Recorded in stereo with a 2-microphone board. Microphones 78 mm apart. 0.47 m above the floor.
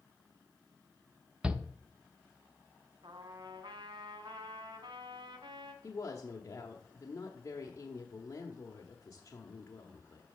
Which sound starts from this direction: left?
A woman speaking, at 5.8 s.